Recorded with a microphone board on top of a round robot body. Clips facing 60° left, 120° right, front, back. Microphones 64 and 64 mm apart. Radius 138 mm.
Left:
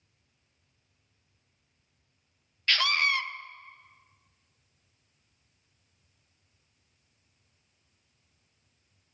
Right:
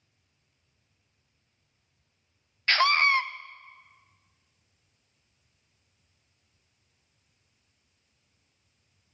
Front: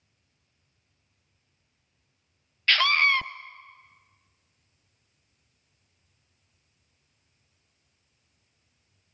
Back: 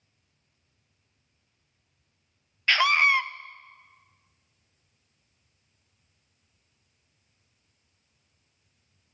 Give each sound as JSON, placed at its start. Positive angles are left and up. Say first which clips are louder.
{"t": 2.7, "sound": "a scream", "louder": "right 5 dB, back 1 dB", "azimuth_deg": -110, "distance_m": 0.6}